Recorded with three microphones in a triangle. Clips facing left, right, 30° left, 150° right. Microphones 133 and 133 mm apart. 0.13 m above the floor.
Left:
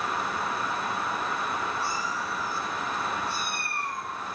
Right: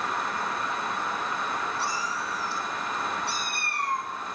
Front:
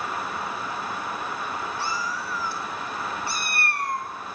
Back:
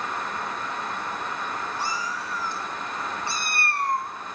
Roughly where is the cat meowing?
Right.